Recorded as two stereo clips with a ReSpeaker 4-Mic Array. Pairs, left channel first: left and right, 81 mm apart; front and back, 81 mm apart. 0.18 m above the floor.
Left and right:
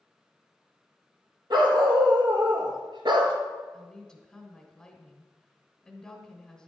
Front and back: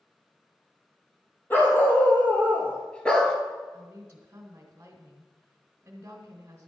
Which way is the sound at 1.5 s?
65° right.